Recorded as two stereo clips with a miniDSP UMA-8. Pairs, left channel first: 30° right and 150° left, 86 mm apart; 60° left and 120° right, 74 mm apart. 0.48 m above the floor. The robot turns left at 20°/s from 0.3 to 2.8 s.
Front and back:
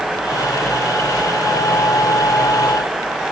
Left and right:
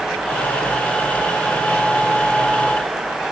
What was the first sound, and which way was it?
Only background noise.